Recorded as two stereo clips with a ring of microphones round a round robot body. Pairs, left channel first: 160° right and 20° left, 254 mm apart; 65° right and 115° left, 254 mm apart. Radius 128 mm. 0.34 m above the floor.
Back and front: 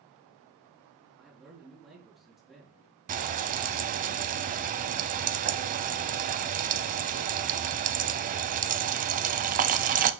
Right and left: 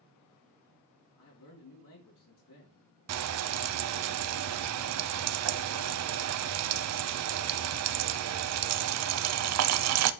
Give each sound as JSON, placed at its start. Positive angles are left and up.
{"t": 1.2, "sound": "a man speaking", "azimuth_deg": -65, "distance_m": 4.5}
{"t": 3.1, "sound": "frying", "azimuth_deg": 85, "distance_m": 0.7}